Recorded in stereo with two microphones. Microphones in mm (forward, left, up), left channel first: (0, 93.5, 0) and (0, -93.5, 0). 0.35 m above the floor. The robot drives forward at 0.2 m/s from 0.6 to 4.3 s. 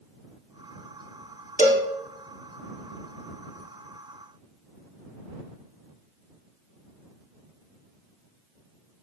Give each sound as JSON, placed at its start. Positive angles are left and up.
{"t": 1.6, "sound": "a cowbell", "side_deg": 40, "distance_m": 1.0}